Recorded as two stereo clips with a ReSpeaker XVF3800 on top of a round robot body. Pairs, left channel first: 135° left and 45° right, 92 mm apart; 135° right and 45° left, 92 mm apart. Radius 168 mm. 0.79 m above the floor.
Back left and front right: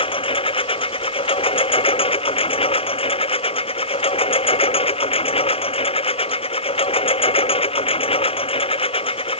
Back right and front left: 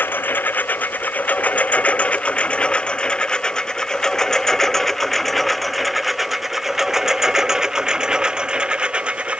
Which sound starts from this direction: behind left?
A lawn mower, at 0.0 s.